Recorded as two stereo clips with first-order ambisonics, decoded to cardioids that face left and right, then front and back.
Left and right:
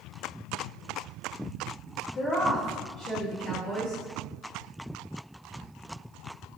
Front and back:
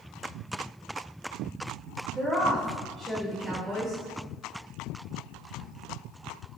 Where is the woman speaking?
105° left, 1.3 m.